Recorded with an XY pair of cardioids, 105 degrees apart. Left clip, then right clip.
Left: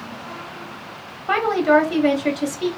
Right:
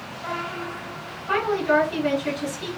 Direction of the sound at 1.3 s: 65° left.